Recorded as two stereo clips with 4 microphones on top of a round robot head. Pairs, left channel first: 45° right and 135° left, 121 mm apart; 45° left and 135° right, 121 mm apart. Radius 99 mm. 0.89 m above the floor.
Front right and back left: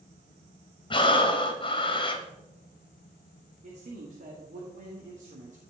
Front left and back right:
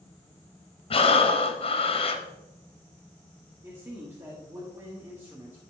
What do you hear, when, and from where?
0.9 s breathing: 5° left, 1.0 m
3.6 s a man speaking: 150° left, 1.5 m